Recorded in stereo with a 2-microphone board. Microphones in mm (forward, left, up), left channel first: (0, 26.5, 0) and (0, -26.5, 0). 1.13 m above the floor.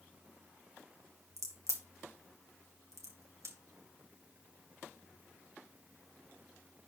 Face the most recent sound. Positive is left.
turn(degrees=-70)  # may be behind; listen again after turning